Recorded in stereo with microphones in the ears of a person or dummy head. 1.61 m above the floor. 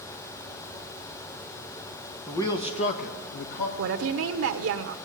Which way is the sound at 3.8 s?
70° right (ahead or behind).